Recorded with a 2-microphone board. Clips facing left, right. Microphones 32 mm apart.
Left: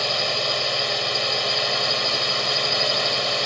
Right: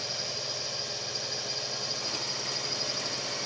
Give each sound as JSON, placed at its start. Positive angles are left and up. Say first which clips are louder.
{"t": 0.0, "sound": "a drone", "louder": "left 13 dB", "side_deg": 60}